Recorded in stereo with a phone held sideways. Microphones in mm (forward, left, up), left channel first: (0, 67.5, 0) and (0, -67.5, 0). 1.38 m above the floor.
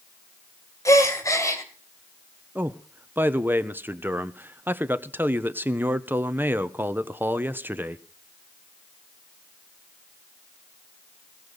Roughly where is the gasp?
Left.